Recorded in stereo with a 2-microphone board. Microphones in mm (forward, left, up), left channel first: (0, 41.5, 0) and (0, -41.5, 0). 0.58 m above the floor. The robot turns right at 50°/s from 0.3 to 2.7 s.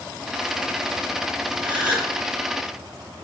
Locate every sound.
1.6 s a gasp: 70° right (ahead or behind), 2 m; by 2.1 s 85° right, 2 m